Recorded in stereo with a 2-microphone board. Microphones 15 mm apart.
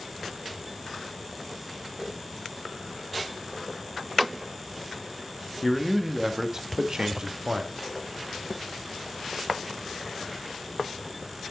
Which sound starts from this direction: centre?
A man speaking, at 5.6 s.